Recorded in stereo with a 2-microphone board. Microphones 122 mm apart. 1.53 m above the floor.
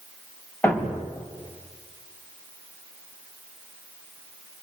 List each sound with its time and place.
0.6 s a thud: 15° left (ahead or behind), 3.5 m